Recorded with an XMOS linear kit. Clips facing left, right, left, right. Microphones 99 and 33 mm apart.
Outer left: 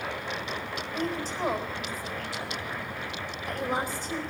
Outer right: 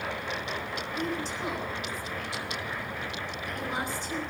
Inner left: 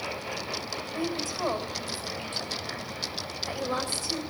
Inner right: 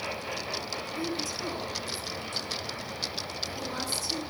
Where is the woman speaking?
40° left (ahead or behind), 4.5 m.